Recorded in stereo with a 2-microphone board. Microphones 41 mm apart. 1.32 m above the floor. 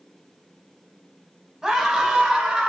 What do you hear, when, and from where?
1.6 s a scream: 15° right (ahead or behind), 7 m; by 2.7 s 25° right (ahead or behind), 8 m